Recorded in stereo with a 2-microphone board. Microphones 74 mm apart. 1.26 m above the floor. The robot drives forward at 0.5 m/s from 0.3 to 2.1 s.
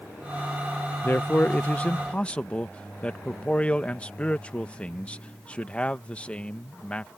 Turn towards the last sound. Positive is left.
turn(degrees=15)  # may be behind; listen again after turning